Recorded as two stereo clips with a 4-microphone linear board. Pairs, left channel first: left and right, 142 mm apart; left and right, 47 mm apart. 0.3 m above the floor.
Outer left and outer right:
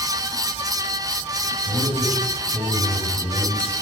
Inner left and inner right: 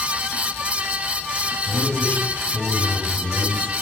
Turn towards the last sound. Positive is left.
turn(degrees=45)  # may be behind; listen again after turning